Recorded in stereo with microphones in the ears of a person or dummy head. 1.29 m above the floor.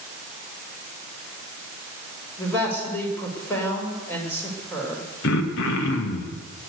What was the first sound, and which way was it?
A man speaking, 15° left (ahead or behind).